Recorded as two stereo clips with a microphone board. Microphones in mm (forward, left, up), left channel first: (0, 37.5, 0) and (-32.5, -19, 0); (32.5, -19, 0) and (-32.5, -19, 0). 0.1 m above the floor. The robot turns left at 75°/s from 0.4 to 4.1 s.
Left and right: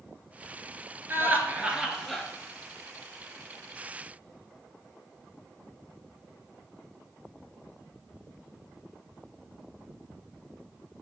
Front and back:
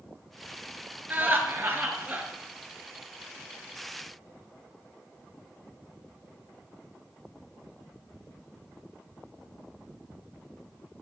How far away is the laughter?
About 1.6 m.